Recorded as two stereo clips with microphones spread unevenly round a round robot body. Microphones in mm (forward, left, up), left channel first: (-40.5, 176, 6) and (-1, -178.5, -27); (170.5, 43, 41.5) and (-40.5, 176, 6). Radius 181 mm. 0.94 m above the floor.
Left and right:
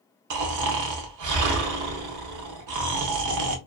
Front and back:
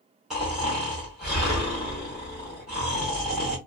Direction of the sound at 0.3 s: 115° right.